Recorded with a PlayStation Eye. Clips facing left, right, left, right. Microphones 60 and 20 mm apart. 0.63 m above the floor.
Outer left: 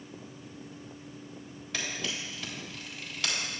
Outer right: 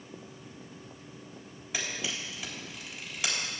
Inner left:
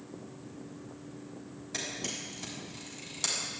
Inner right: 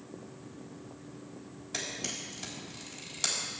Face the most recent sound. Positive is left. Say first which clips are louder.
# even, even
turn(degrees=-10)  # may be behind; listen again after turning